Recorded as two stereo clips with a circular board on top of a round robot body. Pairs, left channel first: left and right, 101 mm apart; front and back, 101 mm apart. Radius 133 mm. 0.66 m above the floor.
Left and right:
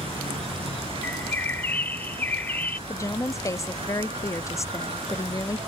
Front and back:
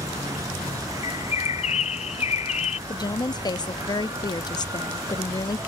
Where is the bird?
15° left.